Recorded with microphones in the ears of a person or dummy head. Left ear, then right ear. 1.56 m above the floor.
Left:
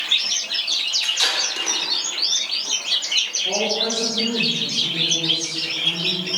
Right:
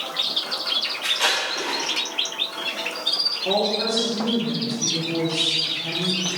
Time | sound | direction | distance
1.0 | tape being pulled | 45° left (ahead or behind) | 4.5 m
3.5 | a woman speaking | 35° right (ahead or behind) | 3.5 m